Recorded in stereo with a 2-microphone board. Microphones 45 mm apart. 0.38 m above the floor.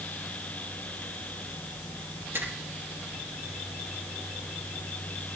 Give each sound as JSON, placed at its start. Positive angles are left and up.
{"t": 2.3, "sound": "a finger snap", "side_deg": -65, "distance_m": 7.5}